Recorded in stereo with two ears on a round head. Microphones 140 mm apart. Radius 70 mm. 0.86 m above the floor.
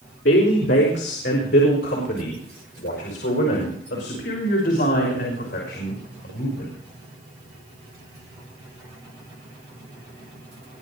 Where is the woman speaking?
75° left (ahead or behind), 3.5 m; by 6.7 s 80° left, 6.5 m.